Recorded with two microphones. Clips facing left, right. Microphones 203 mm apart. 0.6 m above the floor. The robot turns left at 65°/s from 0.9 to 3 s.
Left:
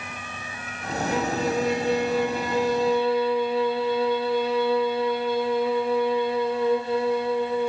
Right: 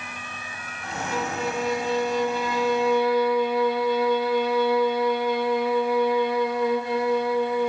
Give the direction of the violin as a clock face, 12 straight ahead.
7 o'clock.